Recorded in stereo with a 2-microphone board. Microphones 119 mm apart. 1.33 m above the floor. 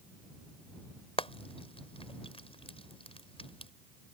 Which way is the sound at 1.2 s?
55° left (ahead or behind).